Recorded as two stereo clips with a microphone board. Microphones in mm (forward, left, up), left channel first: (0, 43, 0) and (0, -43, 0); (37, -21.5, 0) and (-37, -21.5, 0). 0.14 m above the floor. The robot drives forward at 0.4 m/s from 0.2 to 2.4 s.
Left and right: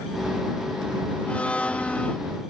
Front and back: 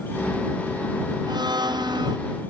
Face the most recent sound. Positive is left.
turn(degrees=165)